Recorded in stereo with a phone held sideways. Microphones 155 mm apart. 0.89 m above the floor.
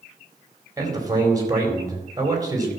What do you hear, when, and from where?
0.8 s a man speaking: 25° right (ahead or behind), 3.5 m